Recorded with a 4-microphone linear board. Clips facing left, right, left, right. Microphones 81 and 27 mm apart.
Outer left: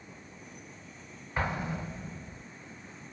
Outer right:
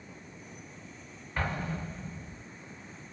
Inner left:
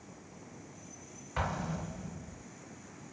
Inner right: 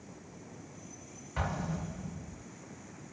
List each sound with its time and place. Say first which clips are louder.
1.4 s an explosion: outer left 1 dB, even; 15° left (ahead or behind), 0.6 m